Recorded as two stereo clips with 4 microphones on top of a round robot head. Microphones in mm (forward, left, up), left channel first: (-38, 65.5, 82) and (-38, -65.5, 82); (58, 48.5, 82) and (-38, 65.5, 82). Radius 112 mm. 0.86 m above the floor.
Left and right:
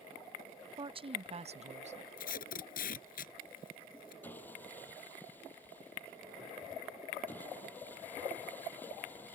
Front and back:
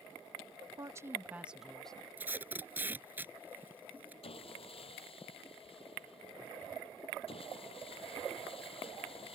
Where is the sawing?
10° left.